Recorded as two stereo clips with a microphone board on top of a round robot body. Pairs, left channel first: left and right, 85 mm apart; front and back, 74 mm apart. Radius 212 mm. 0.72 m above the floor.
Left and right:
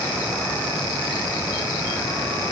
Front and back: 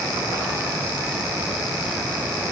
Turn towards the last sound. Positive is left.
No sound to turn to.